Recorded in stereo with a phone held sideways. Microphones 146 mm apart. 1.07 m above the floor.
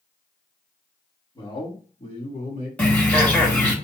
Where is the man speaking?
30° left (ahead or behind), 2 m; by 2.7 s 55° left (ahead or behind), 2.5 m.